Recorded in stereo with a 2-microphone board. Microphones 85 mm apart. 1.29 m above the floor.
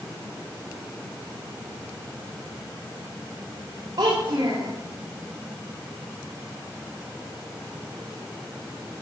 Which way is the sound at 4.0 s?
75° right (ahead or behind).